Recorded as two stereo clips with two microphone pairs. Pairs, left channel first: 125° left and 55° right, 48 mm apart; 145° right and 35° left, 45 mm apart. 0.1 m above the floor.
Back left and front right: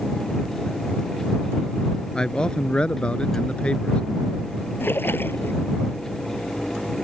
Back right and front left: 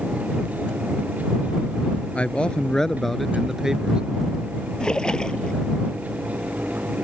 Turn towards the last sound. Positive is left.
turn(degrees=150)